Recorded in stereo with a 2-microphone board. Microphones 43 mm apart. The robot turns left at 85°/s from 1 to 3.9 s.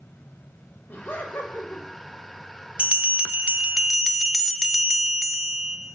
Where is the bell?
25° right (ahead or behind), 0.5 m; by 5.8 s 10° right (ahead or behind), 0.5 m.